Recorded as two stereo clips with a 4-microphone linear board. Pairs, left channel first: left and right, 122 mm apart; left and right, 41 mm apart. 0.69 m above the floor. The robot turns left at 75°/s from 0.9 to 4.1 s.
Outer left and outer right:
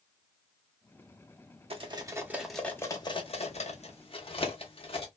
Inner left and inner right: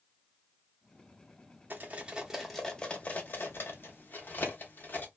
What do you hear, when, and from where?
1.7 s cutlery clinking: 50° right (ahead or behind), 0.7 m; by 5.1 s 50° left (ahead or behind), 0.7 m